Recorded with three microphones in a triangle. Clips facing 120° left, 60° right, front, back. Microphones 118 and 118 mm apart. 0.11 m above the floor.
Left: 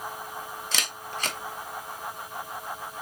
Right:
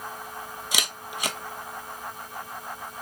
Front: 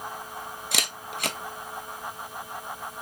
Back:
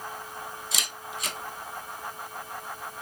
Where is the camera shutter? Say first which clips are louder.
Right 2 dB, front 3 dB; 20° left, 0.6 m.